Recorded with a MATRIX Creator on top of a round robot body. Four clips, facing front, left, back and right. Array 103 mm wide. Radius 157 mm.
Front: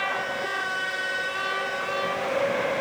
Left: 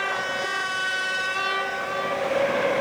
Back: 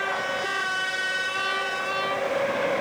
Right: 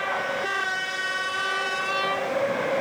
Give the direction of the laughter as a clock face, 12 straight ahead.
No laughter in this recording.